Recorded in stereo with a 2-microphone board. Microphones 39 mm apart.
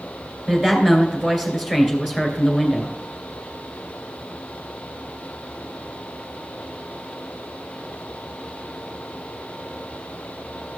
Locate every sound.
0.5 s a woman speaking: 10° right (ahead or behind), 2.5 m